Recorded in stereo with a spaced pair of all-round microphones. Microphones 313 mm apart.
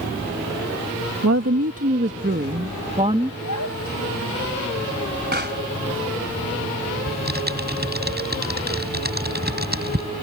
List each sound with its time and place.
1.2 s a woman speaking: 55° right (ahead or behind); by 3.3 s 15° right (ahead or behind)
3.4 s a child speaking: 65° left (ahead or behind)
5.3 s a pop: 30° right (ahead or behind)
7.1 s typing on a keyboard: 30° right (ahead or behind)